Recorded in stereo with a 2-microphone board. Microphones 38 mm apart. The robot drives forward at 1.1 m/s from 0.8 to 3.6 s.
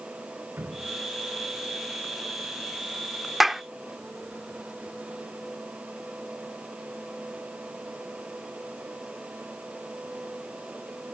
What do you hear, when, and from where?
0.6 s dripping: 70° right (ahead or behind); by 2.7 s 75° right (ahead or behind)
3.4 s a clap: 5° right (ahead or behind); by 3.6 s 10° right (ahead or behind)